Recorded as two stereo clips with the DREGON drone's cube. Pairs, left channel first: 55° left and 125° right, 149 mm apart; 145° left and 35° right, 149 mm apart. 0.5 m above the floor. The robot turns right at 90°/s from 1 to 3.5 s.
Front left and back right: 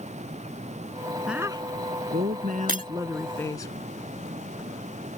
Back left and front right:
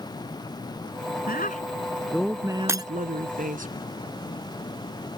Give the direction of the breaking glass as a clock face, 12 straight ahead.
4 o'clock.